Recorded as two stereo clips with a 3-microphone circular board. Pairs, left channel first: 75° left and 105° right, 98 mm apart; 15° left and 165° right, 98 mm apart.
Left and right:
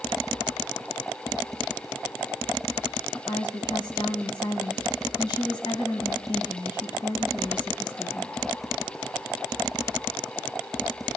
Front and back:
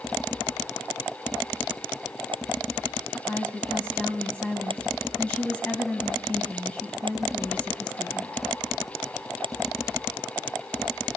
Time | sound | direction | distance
3.1 | a woman speaking | 90° left | 2 m